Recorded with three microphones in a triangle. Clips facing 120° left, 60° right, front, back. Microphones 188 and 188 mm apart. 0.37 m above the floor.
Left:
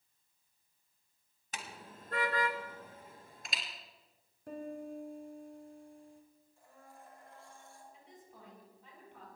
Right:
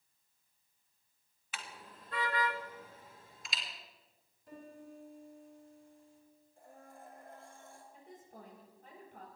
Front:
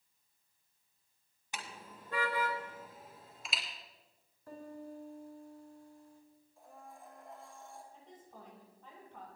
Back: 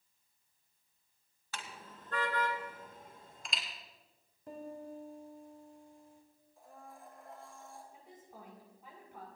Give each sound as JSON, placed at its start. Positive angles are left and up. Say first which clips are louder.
{"t": 1.5, "sound": "a car horn", "louder": "left 2 dB, even", "azimuth_deg": 70, "distance_m": 2.0}
{"t": 4.5, "sound": "a piano", "louder": "left 9 dB, back 2 dB", "azimuth_deg": 110, "distance_m": 4.5}
{"t": 6.6, "sound": "a blender", "louder": "right 3 dB, even", "azimuth_deg": -90, "distance_m": 5.5}
{"t": 7.9, "sound": "a woman speaking", "louder": "right 3 dB, even", "azimuth_deg": -100, "distance_m": 7.5}